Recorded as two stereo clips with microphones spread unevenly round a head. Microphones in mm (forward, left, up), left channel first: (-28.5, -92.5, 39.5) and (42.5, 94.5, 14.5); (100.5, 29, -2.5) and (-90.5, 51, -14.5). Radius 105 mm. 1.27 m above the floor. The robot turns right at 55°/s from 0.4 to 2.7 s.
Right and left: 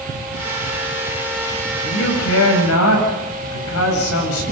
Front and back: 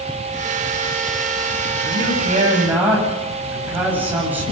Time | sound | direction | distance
1.8 | a man speaking | 155° right | 8 m